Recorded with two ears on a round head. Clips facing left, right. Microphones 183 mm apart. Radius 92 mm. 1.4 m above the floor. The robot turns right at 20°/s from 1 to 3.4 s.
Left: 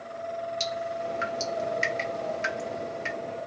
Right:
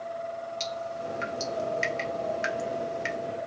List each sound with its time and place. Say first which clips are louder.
0.6 s dripping: left 2 dB; 10° left (ahead or behind), 1.9 m; by 3.2 s 25° right (ahead or behind), 1.9 m